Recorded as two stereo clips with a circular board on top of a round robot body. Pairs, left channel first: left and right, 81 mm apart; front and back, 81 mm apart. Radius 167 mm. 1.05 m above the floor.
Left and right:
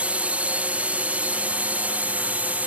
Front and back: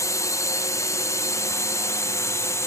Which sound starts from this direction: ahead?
A drone, at 0.0 s.